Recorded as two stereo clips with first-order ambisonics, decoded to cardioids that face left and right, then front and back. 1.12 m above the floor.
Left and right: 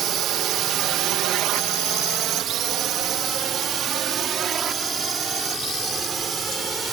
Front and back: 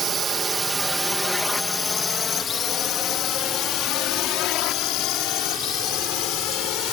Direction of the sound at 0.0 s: 125° right.